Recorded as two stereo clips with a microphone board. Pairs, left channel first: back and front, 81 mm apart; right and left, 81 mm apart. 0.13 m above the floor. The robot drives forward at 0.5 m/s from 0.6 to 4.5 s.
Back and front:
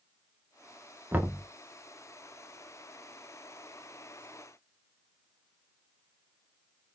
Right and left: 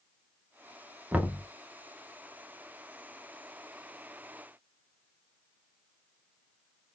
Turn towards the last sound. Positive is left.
turn(degrees=165)